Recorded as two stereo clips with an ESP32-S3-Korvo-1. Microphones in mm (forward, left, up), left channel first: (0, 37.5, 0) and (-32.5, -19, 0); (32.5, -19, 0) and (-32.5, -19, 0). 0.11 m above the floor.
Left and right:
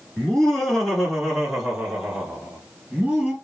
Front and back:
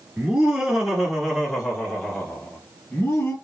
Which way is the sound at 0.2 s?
125° left.